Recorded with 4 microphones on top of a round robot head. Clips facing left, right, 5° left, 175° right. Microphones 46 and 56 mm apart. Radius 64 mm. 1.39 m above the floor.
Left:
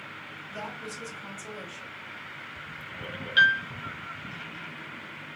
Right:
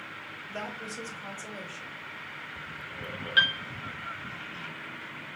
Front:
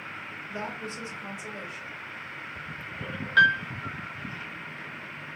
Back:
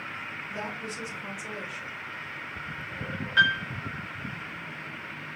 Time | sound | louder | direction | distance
0.5 | a woman speaking | right 1 dB, front 2 dB | 50° right | 2.5 m
3.4 | a piano | left 4 dB, front 3 dB | 20° right | 0.6 m